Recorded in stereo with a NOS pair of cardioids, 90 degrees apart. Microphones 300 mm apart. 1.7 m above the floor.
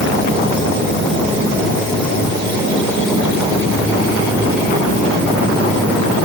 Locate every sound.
Only background noise.